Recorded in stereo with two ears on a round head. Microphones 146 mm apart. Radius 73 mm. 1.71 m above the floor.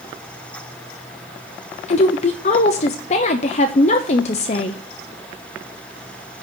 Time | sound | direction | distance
1.9 | a woman speaking | 45° left (ahead or behind) | 0.8 m